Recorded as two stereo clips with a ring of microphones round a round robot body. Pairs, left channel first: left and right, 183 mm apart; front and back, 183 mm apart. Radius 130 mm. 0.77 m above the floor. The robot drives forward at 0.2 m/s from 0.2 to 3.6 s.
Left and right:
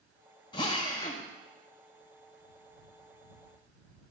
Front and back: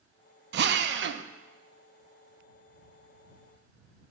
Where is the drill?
160° left, 0.5 m; by 1.2 s 165° left, 0.6 m.